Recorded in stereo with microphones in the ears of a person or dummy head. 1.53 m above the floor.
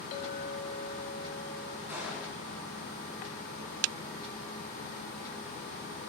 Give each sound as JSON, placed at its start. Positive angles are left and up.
{"t": 0.1, "sound": "a clink", "side_deg": 45, "distance_m": 2.0}
{"t": 1.9, "sound": "a gunshot", "side_deg": -10, "distance_m": 6.0}